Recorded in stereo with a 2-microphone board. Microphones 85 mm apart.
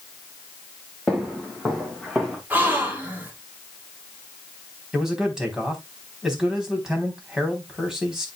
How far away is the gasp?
About 4.5 m.